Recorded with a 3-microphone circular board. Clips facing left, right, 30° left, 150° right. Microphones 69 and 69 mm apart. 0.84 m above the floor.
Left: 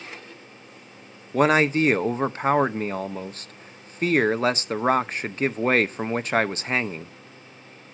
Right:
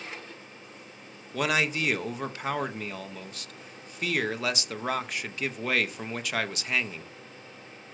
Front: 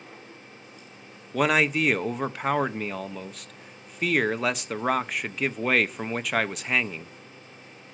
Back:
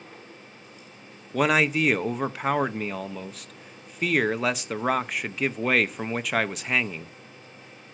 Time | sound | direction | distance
1.3 | a man speaking | 125° left | 0.5 m